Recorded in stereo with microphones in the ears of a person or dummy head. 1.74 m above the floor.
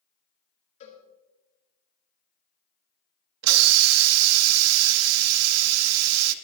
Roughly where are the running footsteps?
No running footsteps in this recording.